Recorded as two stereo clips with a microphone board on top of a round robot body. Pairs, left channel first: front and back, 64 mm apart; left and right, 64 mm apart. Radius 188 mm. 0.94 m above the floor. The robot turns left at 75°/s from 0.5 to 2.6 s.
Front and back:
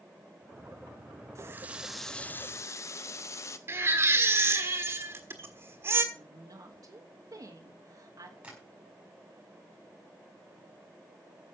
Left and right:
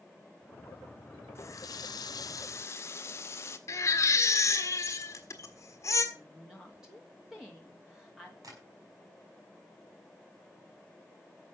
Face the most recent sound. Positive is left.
turn(degrees=-110)